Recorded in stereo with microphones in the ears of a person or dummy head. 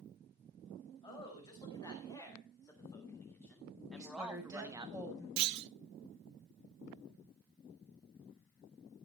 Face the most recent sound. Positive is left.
turn(degrees=-50)  # may be behind; listen again after turning